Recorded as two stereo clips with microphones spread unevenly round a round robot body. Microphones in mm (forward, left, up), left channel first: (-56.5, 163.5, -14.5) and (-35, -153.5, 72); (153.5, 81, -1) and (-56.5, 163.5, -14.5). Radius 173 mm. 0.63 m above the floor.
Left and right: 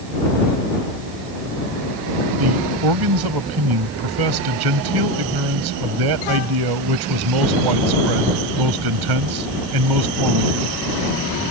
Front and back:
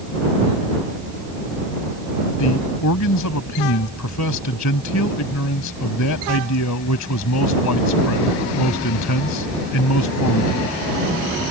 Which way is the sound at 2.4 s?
50° right.